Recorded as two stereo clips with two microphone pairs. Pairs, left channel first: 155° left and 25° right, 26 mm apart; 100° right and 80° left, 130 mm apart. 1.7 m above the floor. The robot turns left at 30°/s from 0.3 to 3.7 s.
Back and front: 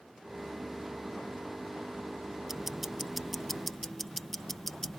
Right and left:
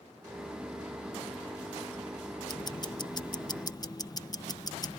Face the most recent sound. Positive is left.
turn(degrees=-125)